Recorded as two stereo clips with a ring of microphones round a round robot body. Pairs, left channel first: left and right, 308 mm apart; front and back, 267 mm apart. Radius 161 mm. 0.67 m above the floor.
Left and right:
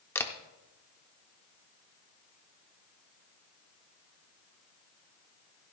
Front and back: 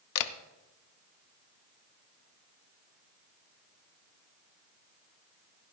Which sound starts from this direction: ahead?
A camera shutter, at 0.1 s.